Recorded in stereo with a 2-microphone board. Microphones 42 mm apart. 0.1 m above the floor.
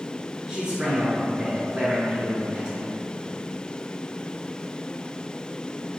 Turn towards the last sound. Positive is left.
turn(degrees=-25)  # may be behind; listen again after turning